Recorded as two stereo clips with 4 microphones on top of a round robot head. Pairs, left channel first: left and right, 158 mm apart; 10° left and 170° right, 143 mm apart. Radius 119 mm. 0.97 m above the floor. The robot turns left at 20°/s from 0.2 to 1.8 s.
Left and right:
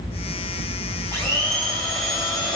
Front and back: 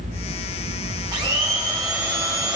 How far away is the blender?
About 0.8 m.